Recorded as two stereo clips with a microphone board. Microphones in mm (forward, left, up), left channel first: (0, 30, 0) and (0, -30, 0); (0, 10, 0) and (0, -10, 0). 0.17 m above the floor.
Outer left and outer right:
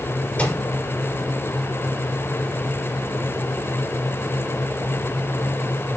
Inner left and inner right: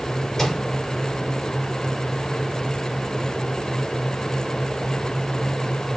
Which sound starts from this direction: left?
A microwave, at 0.4 s.